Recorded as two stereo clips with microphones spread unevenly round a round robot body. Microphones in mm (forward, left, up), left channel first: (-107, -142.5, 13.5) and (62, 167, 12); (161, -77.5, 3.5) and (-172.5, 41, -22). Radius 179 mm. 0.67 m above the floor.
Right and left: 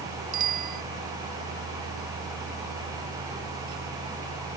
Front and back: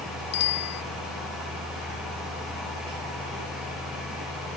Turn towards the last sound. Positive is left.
turn(degrees=-5)